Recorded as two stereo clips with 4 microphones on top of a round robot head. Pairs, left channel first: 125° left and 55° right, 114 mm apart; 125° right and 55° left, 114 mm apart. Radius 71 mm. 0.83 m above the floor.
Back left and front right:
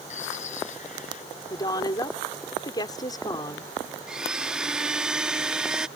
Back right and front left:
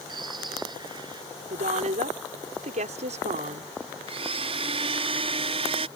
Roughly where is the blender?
Ahead left.